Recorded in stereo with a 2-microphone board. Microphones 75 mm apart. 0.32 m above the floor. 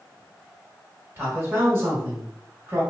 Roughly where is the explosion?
No explosion in this recording.